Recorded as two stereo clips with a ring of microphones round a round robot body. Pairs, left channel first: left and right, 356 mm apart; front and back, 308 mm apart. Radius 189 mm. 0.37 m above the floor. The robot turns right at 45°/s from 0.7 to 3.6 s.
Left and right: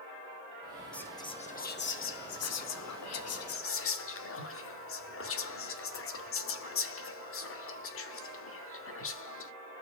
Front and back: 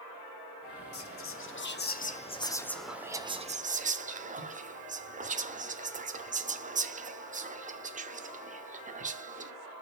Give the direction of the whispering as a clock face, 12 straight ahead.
12 o'clock.